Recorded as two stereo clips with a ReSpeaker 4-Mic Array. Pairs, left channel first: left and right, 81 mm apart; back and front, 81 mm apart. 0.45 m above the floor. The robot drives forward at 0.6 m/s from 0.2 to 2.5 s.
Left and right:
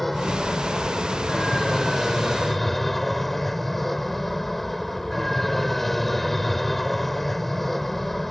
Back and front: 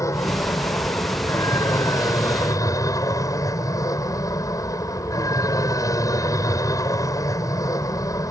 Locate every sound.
0.0 s an aircraft: straight behind